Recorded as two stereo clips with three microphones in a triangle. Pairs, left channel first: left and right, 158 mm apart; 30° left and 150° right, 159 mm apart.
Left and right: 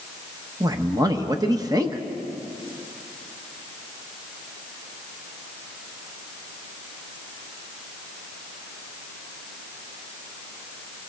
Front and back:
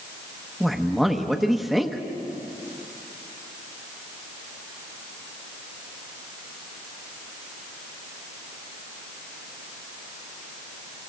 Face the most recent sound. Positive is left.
turn(degrees=-60)